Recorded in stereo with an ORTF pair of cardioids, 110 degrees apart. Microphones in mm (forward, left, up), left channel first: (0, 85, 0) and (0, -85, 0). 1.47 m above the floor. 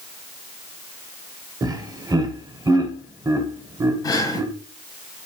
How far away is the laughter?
About 0.9 m.